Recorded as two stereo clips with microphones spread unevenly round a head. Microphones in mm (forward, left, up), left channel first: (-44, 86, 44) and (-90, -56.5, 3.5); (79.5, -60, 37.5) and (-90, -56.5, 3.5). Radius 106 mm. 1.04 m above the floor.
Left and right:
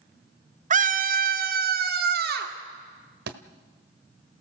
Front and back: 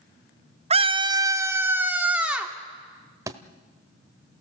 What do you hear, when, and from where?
0.7 s a scream: 135° right, 1.1 m; by 2.5 s 95° right, 3 m
3.3 s a thud: 105° right, 1.3 m